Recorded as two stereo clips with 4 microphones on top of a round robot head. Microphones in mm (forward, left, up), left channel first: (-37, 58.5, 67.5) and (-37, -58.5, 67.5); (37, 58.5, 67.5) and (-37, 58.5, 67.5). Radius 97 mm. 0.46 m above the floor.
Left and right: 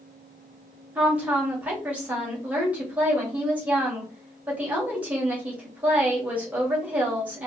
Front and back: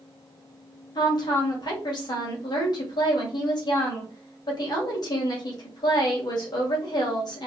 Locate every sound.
0.9 s a woman speaking: 15° right, 2 m